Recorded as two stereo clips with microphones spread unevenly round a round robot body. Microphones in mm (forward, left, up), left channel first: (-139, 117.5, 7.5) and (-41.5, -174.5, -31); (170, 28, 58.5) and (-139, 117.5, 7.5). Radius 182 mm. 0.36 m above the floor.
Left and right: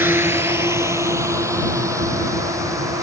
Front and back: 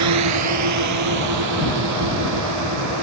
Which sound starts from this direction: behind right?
A drone, at 0.0 s.